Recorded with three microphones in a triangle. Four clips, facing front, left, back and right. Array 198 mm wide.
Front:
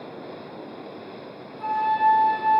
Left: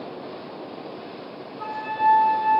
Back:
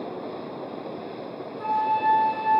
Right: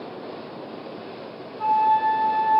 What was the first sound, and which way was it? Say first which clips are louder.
A flute: right 5 dB, front 2 dB; 105° right.